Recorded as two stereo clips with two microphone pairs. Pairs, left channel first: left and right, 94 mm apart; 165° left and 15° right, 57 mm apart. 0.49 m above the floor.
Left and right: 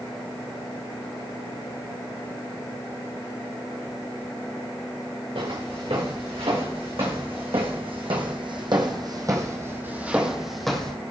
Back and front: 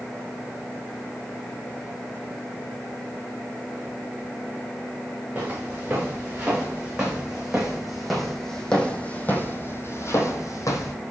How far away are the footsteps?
About 3 m.